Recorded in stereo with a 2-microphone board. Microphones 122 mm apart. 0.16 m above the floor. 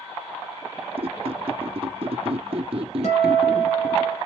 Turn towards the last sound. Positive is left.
turn(degrees=75)  # may be behind; listen again after turning